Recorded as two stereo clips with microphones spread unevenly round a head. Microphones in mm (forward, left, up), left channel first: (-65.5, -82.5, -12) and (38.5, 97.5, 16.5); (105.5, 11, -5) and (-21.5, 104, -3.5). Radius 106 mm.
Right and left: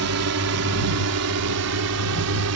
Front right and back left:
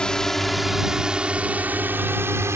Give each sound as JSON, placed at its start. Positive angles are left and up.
{"t": 0.0, "sound": "a drone", "azimuth_deg": 50}